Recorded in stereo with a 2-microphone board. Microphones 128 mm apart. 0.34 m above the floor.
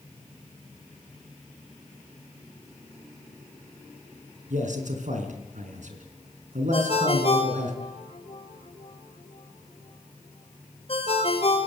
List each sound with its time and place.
4.5 s a man speaking: 75° right (ahead or behind), 4 m
6.7 s a ringtone: 50° left (ahead or behind), 3.5 m